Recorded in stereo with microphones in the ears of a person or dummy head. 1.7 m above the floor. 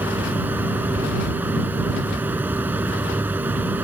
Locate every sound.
0.0 s a fan: 5° right (ahead or behind)